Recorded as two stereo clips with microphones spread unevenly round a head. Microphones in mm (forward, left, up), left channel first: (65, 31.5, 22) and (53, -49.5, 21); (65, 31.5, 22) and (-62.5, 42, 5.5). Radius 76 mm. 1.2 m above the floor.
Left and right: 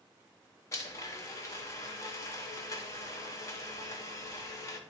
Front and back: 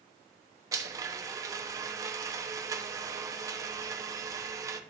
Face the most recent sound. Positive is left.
turn(degrees=125)